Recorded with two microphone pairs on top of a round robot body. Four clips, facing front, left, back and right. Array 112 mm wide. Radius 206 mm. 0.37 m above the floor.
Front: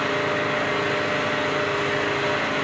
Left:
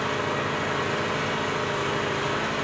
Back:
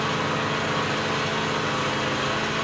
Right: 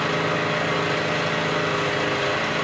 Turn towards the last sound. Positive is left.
turn(degrees=-75)